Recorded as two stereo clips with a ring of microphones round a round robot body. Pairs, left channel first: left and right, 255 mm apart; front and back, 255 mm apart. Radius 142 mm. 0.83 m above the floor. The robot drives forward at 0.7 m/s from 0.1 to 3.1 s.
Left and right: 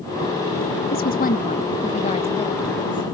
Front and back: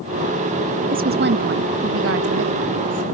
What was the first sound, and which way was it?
A woman speaking, 135° left.